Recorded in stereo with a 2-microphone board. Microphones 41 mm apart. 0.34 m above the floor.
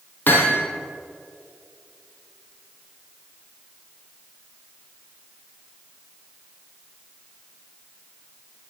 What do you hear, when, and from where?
0.3 s hammering: 50° left (ahead or behind), 3.5 m